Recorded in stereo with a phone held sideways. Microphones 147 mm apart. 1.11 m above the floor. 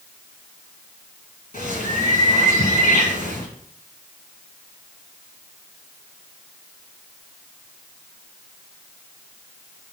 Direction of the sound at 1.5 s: 70° left (ahead or behind).